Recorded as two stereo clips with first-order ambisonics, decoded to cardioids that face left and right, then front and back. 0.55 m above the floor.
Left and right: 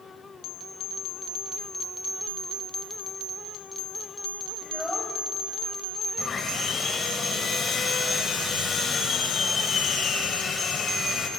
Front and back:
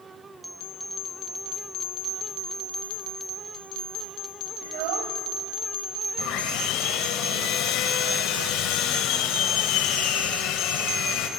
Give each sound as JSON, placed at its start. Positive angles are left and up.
{"t": 4.6, "sound": "a child speaking", "azimuth_deg": 180, "distance_m": 2.5}
{"t": 6.2, "sound": "sawing", "azimuth_deg": 25, "distance_m": 2.5}